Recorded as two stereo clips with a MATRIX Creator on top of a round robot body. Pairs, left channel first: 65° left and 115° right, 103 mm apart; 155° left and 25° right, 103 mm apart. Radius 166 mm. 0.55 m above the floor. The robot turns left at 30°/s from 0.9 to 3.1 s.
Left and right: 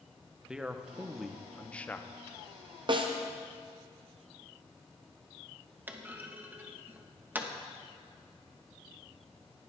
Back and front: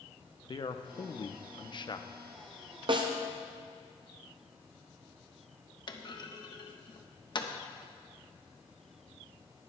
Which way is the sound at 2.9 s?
65° right.